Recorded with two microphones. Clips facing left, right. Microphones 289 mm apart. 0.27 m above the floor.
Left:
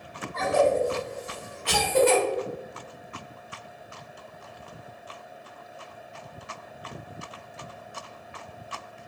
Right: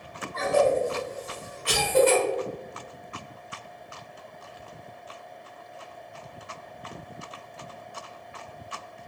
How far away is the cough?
About 1.7 m.